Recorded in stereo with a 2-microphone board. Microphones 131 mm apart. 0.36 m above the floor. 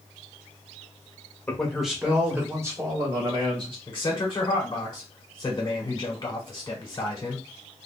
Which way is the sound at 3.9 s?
30° left (ahead or behind).